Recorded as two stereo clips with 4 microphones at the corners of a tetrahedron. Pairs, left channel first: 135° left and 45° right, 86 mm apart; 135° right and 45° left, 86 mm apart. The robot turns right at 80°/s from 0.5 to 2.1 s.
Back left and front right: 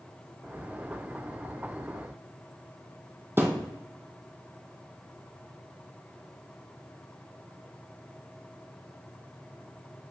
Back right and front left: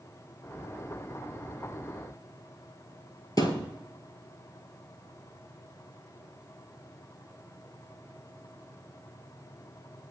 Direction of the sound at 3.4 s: 100° right.